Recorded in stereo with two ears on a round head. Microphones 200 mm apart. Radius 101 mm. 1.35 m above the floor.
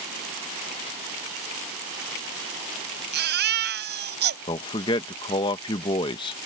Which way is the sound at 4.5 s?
20° left (ahead or behind).